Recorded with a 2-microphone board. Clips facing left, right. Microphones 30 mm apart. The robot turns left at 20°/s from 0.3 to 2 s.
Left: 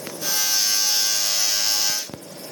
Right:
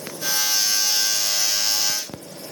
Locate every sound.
Only background noise.